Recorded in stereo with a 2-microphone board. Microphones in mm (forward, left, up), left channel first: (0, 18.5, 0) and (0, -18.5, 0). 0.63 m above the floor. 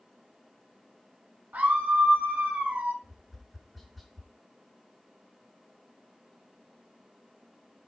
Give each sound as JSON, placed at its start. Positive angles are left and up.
{"t": 1.5, "sound": "a scream", "side_deg": -55, "distance_m": 5.5}
{"t": 3.0, "sound": "tapping", "side_deg": 0, "distance_m": 6.5}